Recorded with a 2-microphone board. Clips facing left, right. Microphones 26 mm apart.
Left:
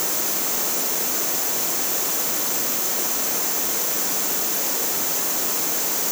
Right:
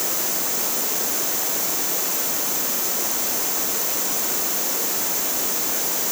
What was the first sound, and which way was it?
Only background noise.